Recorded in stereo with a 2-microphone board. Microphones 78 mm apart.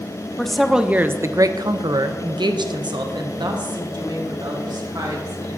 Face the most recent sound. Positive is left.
turn(degrees=-60)  # may be behind; listen again after turning